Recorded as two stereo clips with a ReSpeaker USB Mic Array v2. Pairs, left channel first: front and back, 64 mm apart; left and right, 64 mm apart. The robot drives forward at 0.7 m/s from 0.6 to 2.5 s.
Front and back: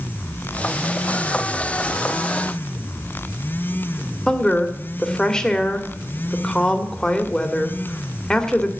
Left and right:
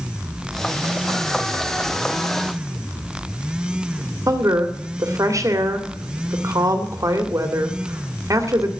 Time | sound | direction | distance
4.3 | a woman speaking | 75° right | 1.9 m